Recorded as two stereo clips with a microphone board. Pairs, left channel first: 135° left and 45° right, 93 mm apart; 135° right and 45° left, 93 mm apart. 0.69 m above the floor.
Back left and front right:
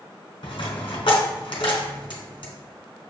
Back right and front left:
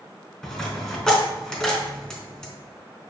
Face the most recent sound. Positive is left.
turn(degrees=145)